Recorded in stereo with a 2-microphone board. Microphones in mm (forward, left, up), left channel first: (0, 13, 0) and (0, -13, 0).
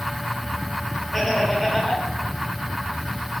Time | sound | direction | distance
1.1 | laughter | 10° left (ahead or behind) | 0.8 m